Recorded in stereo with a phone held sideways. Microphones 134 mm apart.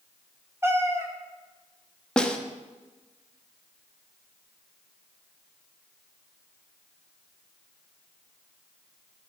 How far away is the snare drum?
About 0.7 m.